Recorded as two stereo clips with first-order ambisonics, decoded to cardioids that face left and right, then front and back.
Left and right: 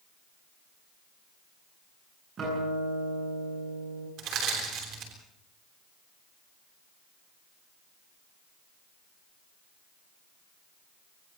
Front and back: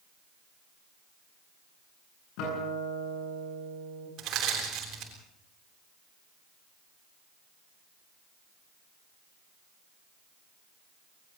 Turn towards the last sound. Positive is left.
turn(degrees=-135)